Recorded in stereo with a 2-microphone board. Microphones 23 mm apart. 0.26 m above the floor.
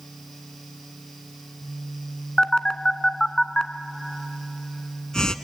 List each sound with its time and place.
2.4 s a phone buzzing: 35° left (ahead or behind), 0.8 m